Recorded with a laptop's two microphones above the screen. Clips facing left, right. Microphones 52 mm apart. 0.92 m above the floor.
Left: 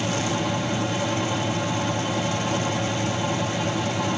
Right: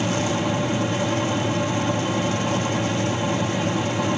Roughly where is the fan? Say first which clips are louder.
Right 2 dB; centre.